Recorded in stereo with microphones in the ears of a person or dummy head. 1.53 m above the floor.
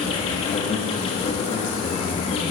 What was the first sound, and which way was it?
An insect, 25° left (ahead or behind).